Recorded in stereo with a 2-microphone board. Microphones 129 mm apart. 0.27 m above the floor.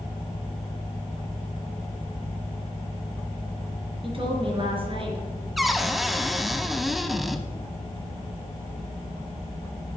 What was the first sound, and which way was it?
A woman speaking, 45° right (ahead or behind).